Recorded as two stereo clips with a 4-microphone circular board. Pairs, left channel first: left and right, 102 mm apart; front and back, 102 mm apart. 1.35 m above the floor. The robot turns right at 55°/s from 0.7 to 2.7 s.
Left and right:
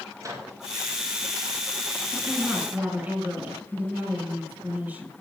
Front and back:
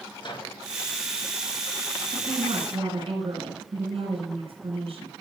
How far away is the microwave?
About 4.5 m.